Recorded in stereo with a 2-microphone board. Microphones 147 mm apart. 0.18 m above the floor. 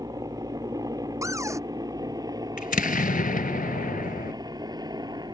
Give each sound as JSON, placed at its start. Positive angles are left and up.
{"t": 0.0, "sound": "a helicopter", "side_deg": -25}
{"t": 1.2, "sound": "a cupboard door", "side_deg": -20}
{"t": 2.6, "sound": "an explosion", "side_deg": 75}